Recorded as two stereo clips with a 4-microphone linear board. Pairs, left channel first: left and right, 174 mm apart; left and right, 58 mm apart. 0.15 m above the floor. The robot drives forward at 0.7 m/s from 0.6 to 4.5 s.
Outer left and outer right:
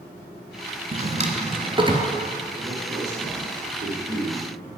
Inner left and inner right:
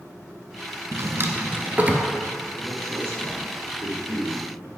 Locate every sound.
0.9 s a drawer: 50° right (ahead or behind), 0.7 m; by 2.1 s 25° right (ahead or behind), 1.2 m
2.6 s a man speaking: 50° right (ahead or behind), 2.5 m; by 4.7 s 35° right (ahead or behind), 3.5 m